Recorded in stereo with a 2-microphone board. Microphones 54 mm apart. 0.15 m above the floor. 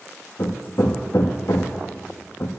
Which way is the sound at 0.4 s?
75° left (ahead or behind).